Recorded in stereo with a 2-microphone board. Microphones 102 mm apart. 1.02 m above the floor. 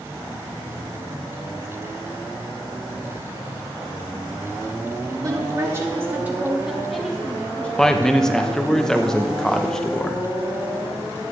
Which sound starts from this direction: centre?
A man speaking, at 7.8 s.